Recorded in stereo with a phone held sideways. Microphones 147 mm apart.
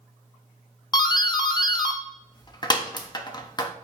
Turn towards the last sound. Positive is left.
turn(degrees=30)  # may be behind; listen again after turning